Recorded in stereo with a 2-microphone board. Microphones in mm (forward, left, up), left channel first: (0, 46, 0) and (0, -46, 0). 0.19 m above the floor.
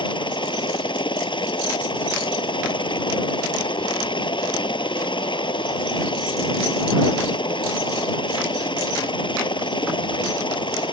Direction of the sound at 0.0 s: 60° left (ahead or behind).